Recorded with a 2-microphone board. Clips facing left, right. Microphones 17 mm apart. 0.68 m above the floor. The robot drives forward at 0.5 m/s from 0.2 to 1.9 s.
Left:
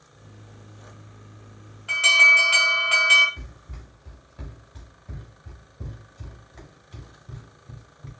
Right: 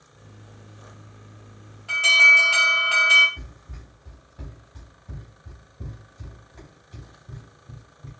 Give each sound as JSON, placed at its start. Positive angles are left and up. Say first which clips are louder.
{"t": 1.9, "sound": "an alarm", "louder": "right 1 dB", "side_deg": 15, "distance_m": 2.5}
{"t": 3.4, "sound": "running footsteps", "louder": "even", "side_deg": 20, "distance_m": 2.5}